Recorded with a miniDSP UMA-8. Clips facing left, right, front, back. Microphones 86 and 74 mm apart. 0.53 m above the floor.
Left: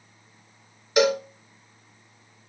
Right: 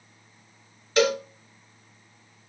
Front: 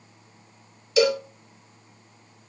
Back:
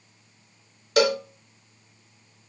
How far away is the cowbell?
About 0.7 m.